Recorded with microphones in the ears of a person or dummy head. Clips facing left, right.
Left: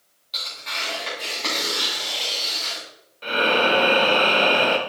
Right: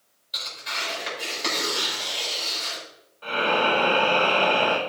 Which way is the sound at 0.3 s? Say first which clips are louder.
Even; 10° right (ahead or behind).